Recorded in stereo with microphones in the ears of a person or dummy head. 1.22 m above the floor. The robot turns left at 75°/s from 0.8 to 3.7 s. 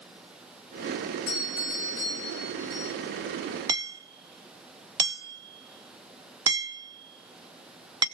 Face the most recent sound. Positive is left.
turn(degrees=-20)  # may be behind; listen again after turning